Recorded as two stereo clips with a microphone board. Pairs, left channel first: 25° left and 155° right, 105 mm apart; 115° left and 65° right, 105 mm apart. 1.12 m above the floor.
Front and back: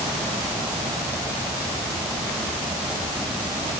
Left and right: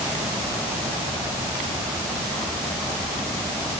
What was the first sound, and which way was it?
Only background noise.